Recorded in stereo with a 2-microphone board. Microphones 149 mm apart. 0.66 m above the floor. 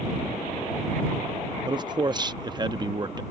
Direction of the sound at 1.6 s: 30° right (ahead or behind).